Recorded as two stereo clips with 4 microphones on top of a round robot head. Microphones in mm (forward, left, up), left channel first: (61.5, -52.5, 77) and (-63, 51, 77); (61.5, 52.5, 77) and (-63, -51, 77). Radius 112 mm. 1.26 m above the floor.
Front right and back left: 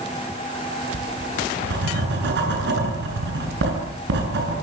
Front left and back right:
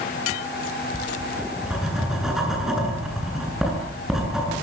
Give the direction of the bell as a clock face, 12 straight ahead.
No bell in this recording.